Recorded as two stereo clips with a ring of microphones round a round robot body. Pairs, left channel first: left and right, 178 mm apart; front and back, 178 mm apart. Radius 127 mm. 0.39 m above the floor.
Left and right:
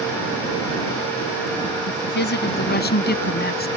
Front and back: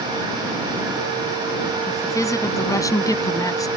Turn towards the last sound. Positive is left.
turn(degrees=70)